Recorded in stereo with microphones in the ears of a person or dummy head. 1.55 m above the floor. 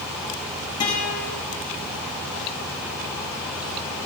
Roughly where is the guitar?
Left.